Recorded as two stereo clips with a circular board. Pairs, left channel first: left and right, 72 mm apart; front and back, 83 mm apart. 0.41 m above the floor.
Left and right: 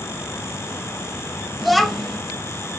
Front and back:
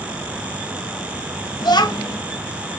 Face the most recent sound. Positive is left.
turn(degrees=0)